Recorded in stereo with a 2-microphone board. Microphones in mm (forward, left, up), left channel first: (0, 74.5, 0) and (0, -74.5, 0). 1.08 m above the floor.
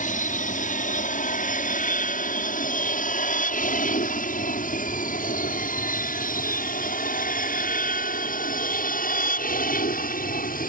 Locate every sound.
0.0 s an aircraft: 60° left (ahead or behind); by 10.7 s 65° left (ahead or behind)